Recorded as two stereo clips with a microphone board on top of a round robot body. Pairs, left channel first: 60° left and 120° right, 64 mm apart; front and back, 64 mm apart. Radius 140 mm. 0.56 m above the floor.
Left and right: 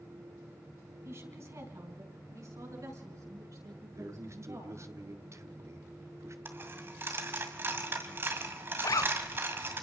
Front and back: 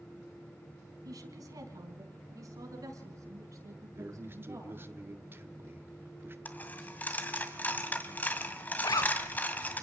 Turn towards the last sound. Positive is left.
turn(degrees=25)